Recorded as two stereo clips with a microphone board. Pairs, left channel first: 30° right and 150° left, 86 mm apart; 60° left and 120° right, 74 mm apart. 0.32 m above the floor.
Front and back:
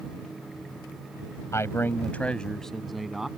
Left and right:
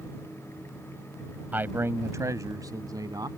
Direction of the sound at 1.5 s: 65° right.